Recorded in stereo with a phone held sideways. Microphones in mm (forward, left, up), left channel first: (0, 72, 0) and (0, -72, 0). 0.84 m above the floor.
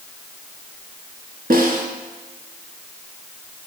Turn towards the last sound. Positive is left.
turn(degrees=-75)  # may be behind; listen again after turning